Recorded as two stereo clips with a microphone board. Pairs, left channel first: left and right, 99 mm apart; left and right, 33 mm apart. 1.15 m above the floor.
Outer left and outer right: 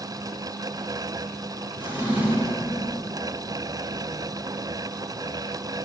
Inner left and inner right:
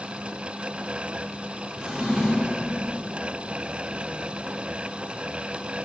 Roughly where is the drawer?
Centre.